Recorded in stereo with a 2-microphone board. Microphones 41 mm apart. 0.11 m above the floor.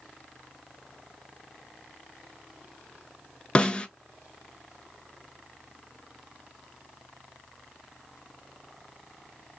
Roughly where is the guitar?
I don't hear a guitar.